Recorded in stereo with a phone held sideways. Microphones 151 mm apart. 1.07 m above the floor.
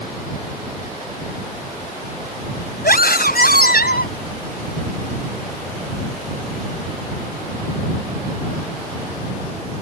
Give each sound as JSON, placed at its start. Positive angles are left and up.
{"t": 2.8, "sound": "a scream", "side_deg": 85}